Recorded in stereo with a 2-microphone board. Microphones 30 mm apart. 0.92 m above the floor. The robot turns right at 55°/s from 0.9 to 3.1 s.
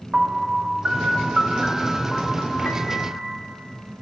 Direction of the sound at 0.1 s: 35° right.